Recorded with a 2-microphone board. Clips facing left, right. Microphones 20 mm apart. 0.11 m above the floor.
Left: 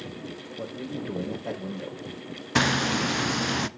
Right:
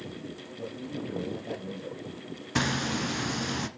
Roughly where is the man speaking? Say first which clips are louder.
Left 2 dB; left.